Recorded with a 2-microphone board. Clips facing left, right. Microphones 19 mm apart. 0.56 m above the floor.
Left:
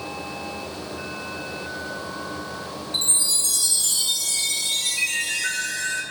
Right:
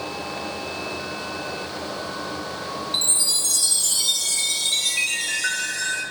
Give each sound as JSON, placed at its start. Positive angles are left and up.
{"t": 2.9, "sound": "a chime", "side_deg": -35, "distance_m": 0.9}